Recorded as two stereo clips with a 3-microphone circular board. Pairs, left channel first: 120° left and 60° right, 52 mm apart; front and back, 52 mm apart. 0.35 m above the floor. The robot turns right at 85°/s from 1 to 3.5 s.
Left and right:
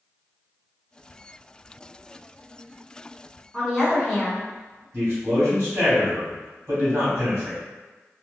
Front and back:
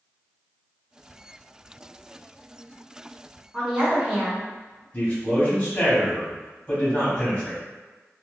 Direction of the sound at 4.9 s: 55° right.